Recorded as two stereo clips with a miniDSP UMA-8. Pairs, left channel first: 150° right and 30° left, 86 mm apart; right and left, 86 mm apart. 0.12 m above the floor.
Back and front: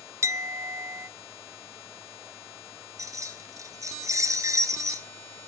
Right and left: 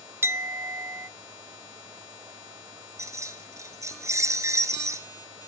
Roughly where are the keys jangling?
Ahead left.